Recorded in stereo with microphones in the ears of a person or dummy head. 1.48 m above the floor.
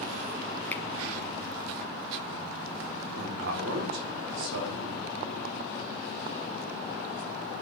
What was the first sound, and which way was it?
A finger snap, 15° left (ahead or behind).